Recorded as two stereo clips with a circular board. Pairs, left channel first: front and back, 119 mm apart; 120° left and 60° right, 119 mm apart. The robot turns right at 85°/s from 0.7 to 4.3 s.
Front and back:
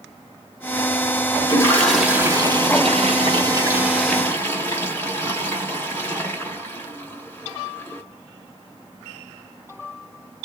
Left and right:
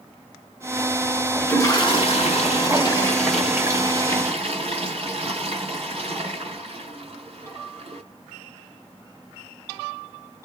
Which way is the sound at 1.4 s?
45° left.